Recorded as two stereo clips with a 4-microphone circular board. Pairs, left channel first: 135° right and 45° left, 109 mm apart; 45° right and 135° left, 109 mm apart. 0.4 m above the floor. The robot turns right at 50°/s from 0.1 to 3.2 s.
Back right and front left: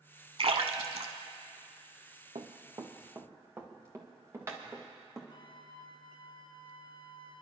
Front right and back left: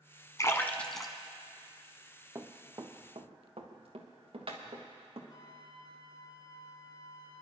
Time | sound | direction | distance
0.4 | a splash | 15° left | 0.9 m
2.4 | running footsteps | 70° left | 1.3 m
5.3 | a flute | 95° right | 0.6 m